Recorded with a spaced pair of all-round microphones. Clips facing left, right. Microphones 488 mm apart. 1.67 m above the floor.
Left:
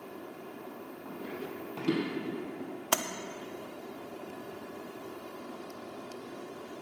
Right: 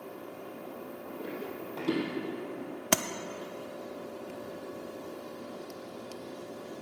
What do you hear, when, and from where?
1.1 s running footsteps: 25° left (ahead or behind), 4 m; by 2.7 s 35° left (ahead or behind), 3.5 m
2.9 s tapping: 45° right (ahead or behind), 0.5 m